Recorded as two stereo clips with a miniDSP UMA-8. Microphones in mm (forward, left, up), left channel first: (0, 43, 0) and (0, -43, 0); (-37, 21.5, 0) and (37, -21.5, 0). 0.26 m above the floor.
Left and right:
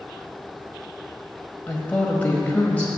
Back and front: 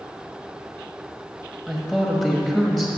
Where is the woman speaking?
70° left, 0.9 m.